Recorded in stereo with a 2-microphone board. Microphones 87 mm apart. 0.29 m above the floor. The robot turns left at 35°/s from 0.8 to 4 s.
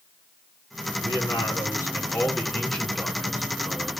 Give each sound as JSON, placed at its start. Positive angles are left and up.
{"t": 1.0, "sound": "a man speaking", "azimuth_deg": 75, "distance_m": 3.0}